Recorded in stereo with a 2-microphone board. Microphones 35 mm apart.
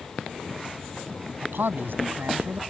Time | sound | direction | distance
1.4 | a man speaking | 90° right | ?